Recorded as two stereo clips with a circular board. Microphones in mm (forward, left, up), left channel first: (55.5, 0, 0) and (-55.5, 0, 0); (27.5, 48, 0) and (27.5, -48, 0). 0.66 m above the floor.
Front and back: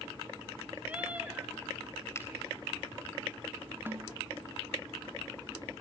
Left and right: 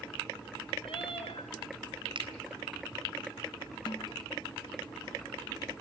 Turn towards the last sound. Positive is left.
turn(degrees=115)